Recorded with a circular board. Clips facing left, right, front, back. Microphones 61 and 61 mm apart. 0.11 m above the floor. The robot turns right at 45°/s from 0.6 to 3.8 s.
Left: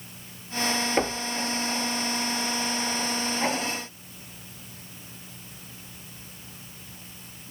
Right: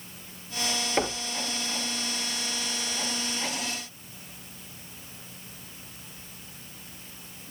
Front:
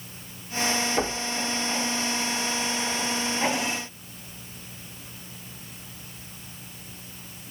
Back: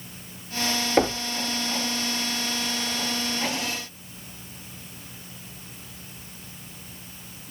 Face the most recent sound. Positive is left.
turn(degrees=-60)